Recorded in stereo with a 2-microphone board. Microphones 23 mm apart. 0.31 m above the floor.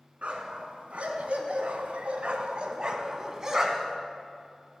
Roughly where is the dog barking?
Right.